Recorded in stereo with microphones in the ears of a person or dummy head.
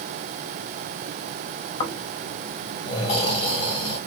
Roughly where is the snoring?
Left.